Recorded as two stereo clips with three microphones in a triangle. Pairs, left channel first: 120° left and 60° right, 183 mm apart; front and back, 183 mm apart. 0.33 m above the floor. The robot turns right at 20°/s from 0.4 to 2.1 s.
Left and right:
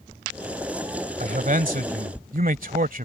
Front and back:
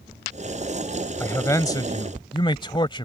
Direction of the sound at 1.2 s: 75° right.